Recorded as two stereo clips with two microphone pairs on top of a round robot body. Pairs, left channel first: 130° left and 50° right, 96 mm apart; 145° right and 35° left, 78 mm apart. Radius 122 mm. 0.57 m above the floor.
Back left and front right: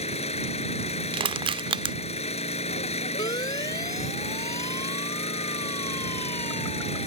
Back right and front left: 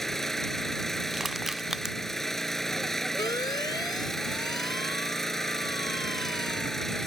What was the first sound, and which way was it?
An engine running, 130° left.